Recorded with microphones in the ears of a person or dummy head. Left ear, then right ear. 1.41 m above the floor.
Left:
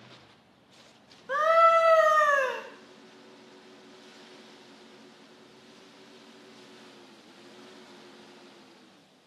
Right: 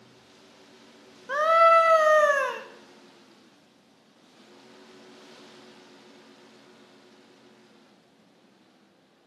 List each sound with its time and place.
1.3 s a scream: 15° right (ahead or behind), 0.6 m